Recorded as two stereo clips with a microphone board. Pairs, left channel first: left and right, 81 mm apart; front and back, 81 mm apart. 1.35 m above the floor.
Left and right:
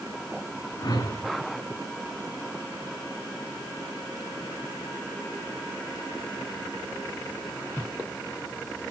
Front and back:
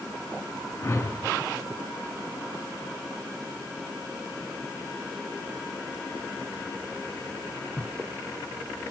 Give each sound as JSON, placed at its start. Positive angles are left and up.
{"t": 0.8, "sound": "a whoosh", "azimuth_deg": 60, "distance_m": 3.0}